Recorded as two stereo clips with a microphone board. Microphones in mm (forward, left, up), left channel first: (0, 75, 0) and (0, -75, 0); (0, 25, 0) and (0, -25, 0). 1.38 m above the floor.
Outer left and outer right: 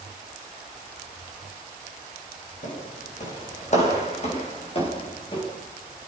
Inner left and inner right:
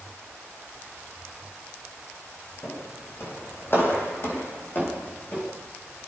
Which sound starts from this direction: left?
Footsteps, at 2.6 s.